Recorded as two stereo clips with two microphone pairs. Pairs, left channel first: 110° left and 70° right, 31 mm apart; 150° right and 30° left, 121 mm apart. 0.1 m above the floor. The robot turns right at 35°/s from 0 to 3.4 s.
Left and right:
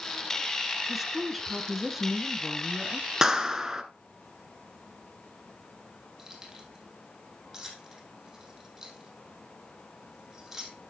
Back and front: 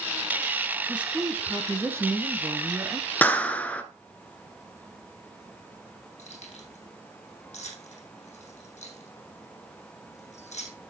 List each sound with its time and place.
0.9 s a woman speaking: 35° right, 1.1 m; by 3.1 s 45° left, 1.1 m
3.2 s a clap: 110° right, 1.0 m; by 3.8 s 105° right, 1.0 m
6.2 s keys jangling: 145° right, 3 m